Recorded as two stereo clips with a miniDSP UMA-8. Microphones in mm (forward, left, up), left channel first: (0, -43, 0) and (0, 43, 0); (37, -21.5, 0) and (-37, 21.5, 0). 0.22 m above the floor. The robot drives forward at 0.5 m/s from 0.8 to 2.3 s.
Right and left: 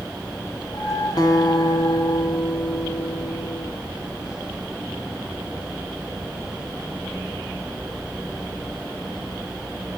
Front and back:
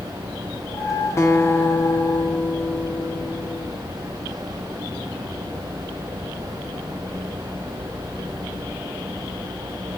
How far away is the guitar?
About 2 m.